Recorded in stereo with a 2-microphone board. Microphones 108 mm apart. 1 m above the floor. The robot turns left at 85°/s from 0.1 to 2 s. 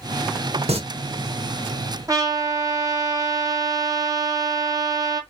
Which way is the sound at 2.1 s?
35° right (ahead or behind).